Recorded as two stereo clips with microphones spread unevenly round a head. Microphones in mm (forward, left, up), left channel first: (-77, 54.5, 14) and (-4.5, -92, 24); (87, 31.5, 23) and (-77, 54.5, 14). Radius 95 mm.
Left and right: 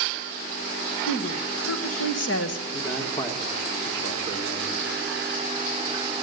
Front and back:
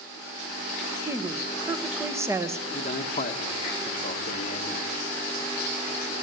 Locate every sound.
1.1 s a woman speaking: 100° left, 1.6 m
2.7 s a man speaking: 40° left, 2 m